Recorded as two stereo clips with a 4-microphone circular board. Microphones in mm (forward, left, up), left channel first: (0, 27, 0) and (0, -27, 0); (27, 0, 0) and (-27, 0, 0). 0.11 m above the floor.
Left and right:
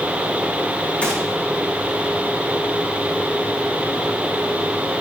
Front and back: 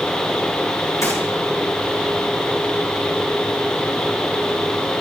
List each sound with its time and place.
1.0 s a gunshot: 25° left, 5 m